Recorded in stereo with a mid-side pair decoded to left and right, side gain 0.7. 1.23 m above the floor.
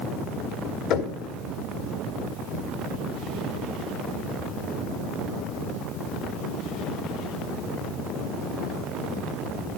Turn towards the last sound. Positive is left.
turn(degrees=55)